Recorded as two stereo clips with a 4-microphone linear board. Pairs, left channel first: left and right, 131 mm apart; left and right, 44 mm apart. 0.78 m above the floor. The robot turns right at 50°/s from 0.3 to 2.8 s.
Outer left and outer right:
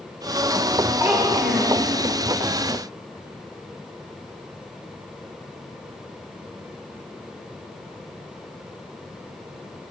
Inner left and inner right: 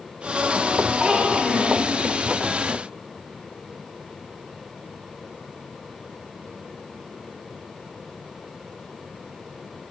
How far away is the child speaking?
About 1.2 m.